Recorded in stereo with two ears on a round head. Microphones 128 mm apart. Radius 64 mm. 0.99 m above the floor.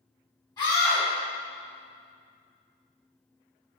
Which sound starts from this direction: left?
A scream, at 0.6 s.